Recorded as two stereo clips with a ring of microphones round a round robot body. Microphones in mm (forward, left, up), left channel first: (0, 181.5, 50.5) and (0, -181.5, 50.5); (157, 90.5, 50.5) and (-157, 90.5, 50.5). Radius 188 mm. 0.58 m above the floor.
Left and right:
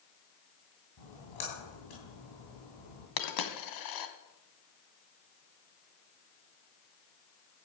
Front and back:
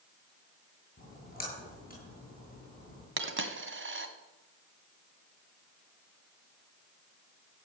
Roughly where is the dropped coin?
Behind left.